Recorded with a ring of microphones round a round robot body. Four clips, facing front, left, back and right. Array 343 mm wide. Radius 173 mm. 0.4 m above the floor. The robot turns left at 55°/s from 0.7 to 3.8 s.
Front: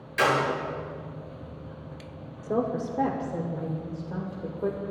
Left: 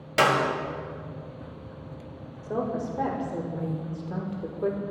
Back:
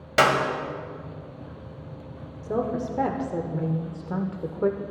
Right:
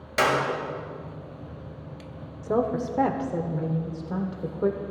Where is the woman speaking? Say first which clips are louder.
Right 4 dB, back 1 dB; 85° right, 1.4 m; by 4.8 s 160° right, 1.4 m.